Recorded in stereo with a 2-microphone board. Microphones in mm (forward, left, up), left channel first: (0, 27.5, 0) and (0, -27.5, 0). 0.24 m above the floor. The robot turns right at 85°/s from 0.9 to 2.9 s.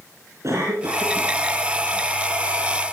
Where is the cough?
115° right, 3.5 m; by 1.4 s 75° right, 3.5 m.